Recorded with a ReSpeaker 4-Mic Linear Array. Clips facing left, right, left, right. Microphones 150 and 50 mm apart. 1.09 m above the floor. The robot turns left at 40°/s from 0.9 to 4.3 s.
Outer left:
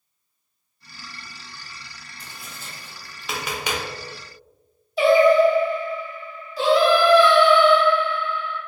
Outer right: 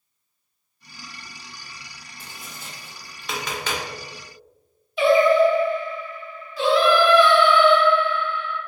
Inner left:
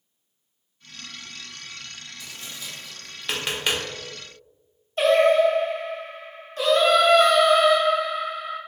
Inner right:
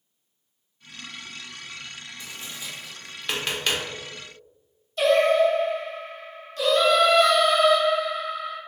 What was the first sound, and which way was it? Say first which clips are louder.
Tapping: outer right 1 dB, inner right 1 dB; 25° right (ahead or behind).